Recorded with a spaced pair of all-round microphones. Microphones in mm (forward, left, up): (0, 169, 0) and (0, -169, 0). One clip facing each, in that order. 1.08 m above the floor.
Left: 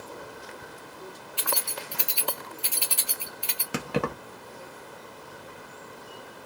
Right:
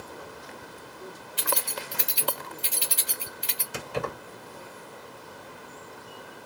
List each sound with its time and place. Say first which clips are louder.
1.4 s keys jangling: right 2 dB; 25° right (ahead or behind), 1.0 m
3.7 s keys jangling: left 4 dB; 80° left, 0.9 m